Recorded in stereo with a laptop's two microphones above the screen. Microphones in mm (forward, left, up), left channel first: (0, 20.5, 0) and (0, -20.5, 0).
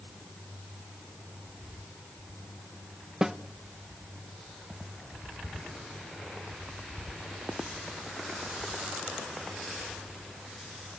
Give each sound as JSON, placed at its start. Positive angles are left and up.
{"t": 3.2, "sound": "a snare drum", "side_deg": -15, "distance_m": 0.8}